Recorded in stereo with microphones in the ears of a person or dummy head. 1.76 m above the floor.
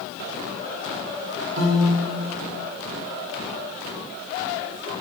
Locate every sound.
1.6 s a piano: 60° right (ahead or behind), 2.5 m